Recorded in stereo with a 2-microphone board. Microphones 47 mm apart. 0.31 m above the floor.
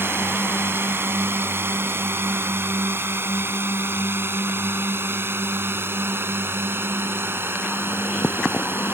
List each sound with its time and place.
0.0 s a drone: 60° right (ahead or behind); by 8.9 s 55° right (ahead or behind)